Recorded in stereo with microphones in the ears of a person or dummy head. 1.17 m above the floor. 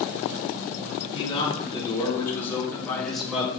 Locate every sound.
1.1 s a man speaking: 25° left (ahead or behind), 3.5 m; by 3.5 s 5° right (ahead or behind), 2 m